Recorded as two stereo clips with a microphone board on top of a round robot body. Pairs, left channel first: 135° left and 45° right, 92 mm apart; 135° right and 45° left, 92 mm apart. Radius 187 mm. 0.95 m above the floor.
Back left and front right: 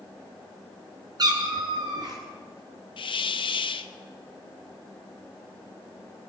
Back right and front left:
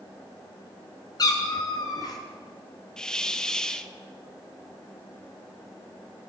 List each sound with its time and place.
1.2 s a cat meowing: 90° right, 0.8 m
3.0 s a hiss: 140° left, 0.6 m